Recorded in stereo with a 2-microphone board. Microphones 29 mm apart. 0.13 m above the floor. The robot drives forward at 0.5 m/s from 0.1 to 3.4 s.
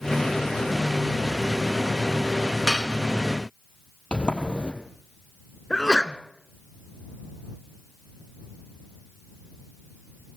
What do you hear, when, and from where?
2.7 s dishes clattering: 15° right (ahead or behind), 0.7 m
4.1 s a sliding door: 40° left (ahead or behind), 3 m
5.7 s a sneeze: 25° left (ahead or behind), 1.2 m